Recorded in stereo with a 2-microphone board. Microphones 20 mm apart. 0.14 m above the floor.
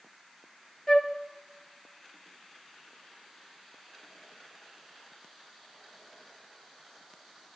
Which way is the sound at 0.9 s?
20° left (ahead or behind).